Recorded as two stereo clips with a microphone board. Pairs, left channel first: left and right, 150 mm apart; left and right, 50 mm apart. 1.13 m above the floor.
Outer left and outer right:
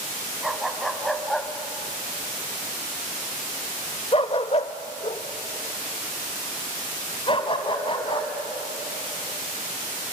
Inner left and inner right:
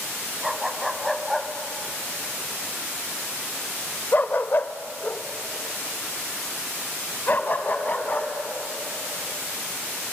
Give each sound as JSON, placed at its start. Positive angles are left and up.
{"t": 0.4, "sound": "a dog barking", "side_deg": 0, "distance_m": 2.5}